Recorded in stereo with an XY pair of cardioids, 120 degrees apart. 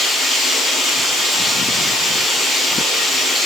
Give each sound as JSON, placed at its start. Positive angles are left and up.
{"t": 0.0, "sound": "running water", "azimuth_deg": 45, "distance_m": 8.0}